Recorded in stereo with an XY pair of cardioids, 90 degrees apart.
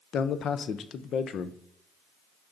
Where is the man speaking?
65° left, 0.6 m.